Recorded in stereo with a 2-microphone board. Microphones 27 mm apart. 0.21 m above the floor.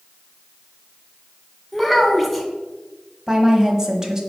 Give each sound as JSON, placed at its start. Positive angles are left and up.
{"t": 1.7, "sound": "a child speaking", "side_deg": -5, "distance_m": 1.5}
{"t": 3.3, "sound": "a woman speaking", "side_deg": -20, "distance_m": 1.0}